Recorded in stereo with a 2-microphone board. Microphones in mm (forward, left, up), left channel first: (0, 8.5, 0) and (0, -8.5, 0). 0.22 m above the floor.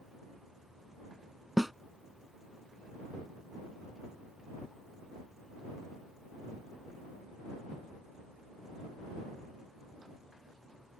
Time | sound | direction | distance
1.6 | a snare drum | 15° right (ahead or behind) | ?